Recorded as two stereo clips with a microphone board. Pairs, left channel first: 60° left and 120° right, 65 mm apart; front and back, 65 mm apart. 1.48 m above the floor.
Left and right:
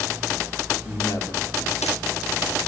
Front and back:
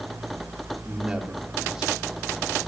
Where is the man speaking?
100° left, 4 m.